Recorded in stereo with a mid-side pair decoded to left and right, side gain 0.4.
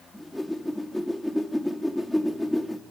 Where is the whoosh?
15° left, 2.5 m.